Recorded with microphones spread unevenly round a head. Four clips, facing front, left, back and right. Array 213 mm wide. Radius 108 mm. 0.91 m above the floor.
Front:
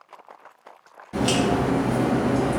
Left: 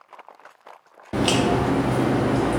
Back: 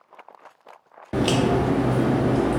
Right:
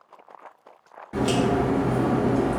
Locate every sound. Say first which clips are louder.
1.1 s a crack: left 2 dB, back 1 dB; 145° left, 0.6 m